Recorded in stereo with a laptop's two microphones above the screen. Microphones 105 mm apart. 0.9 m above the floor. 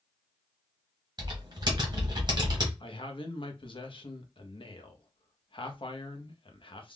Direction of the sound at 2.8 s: 55° left (ahead or behind).